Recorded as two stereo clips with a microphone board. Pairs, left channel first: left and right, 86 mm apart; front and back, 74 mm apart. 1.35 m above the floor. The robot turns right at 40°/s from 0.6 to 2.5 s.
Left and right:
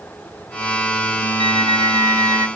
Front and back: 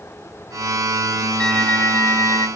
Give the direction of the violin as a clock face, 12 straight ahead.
3 o'clock.